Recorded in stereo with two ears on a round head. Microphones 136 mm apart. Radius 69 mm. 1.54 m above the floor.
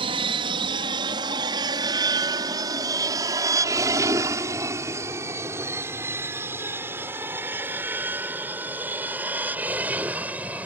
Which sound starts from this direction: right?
An aircraft, at 0.0 s.